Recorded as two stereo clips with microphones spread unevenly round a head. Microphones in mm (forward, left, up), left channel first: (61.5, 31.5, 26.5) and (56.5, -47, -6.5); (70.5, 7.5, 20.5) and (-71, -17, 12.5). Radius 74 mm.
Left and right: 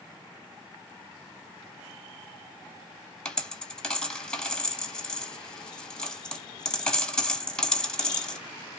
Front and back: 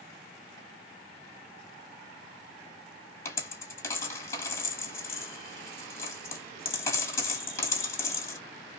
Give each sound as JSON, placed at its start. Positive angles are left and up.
{"t": 3.2, "sound": "a dropped coin", "azimuth_deg": 65, "distance_m": 1.1}